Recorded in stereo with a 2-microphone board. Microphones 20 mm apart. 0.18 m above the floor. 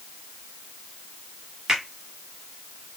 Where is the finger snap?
25° right (ahead or behind), 1.3 m.